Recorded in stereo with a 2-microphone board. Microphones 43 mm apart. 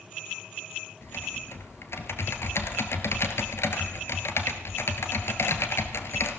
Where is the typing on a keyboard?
70° left (ahead or behind), 1.3 m.